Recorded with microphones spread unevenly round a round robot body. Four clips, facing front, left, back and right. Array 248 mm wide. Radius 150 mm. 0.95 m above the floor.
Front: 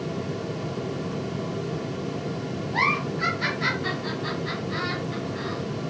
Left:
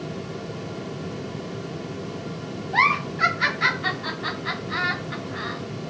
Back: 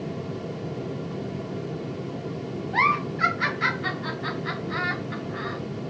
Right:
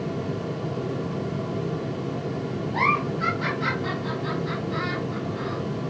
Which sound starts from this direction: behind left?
A giggle, at 2.7 s.